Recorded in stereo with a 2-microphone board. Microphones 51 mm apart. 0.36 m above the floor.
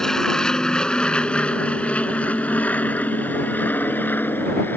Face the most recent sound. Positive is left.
turn(degrees=40)  # may be behind; listen again after turning